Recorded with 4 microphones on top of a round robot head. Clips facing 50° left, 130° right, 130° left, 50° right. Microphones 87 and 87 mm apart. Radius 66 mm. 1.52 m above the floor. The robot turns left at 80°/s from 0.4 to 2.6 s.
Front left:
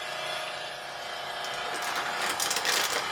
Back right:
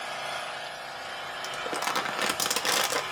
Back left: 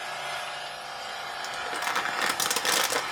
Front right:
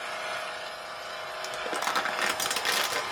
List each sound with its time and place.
0.0 s an engine running: 175° right, 1.4 m; by 3.1 s 10° left, 1.4 m
1.4 s crumpling: 85° right, 0.5 m; by 3.0 s 175° right, 0.5 m